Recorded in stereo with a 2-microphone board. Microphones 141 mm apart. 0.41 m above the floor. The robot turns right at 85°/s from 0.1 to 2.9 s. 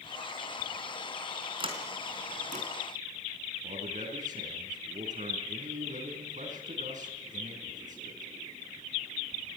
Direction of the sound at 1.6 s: 35° right (ahead or behind).